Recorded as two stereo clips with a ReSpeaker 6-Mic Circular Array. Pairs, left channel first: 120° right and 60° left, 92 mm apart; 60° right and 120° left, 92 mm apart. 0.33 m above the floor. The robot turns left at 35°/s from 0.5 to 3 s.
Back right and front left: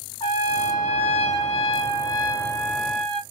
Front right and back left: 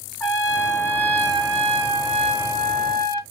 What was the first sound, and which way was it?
A trumpet, 130° right.